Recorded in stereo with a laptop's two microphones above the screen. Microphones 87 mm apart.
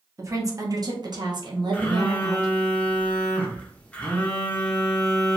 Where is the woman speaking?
35° right (ahead or behind), 1.1 m; by 2.5 s 50° right (ahead or behind), 1.0 m.